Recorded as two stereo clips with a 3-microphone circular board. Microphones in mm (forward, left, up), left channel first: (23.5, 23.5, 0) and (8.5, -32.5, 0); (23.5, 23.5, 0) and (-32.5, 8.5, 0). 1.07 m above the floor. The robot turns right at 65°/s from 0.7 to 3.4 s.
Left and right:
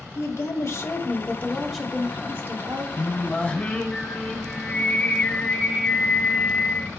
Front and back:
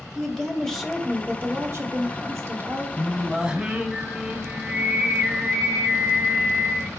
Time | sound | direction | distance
0.1 | a woman speaking | 95° left | 1.7 m
3.0 | singing | 100° left | 1.2 m